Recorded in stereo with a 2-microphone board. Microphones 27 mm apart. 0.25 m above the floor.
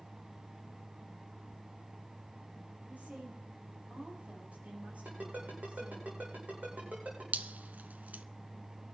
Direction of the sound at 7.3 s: 70° right (ahead or behind).